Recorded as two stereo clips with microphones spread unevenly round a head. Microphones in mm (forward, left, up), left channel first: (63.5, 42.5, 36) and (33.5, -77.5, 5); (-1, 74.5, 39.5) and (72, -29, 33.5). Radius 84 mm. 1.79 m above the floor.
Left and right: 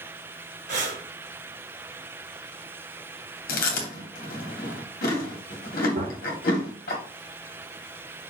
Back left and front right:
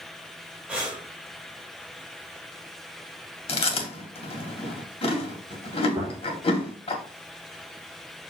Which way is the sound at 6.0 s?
120° right.